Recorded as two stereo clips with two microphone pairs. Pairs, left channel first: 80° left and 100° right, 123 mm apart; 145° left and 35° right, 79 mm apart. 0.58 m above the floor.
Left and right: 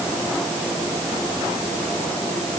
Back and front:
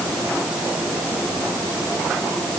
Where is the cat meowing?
No cat meowing in this recording.